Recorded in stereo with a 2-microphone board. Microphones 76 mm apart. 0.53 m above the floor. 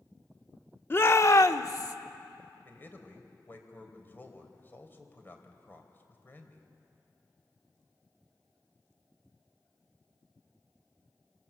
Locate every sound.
0.9 s a shout: 30° left (ahead or behind), 0.8 m; by 1.9 s 55° left (ahead or behind), 1.3 m
2.6 s a man speaking: 25° left (ahead or behind), 3 m